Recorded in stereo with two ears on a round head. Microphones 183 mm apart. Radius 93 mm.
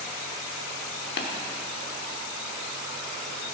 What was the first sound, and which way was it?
Tapping, 55° left (ahead or behind).